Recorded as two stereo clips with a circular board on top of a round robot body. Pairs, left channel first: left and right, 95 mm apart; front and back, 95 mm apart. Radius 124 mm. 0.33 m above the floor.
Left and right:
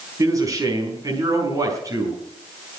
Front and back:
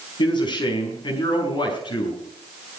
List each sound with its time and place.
0.2 s a man speaking: 35° right, 5 m